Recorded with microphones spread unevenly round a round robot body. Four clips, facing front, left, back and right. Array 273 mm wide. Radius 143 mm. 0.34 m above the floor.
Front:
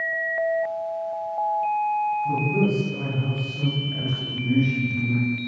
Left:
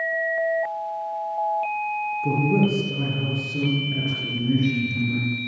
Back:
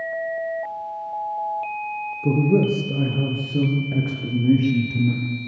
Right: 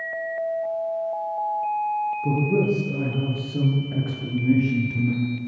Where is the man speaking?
Straight behind, 8 m; by 5.2 s 155° right, 11 m.